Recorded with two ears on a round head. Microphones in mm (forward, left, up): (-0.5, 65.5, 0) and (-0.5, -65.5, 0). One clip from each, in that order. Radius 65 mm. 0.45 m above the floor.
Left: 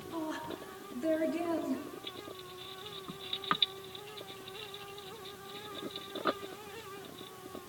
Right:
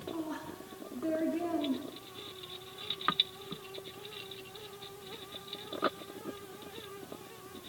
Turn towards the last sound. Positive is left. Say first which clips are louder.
# left 6 dB
turn(degrees=75)  # may be behind; listen again after turning